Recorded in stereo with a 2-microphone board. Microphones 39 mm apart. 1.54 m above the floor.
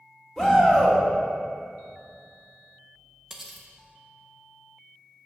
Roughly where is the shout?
Centre.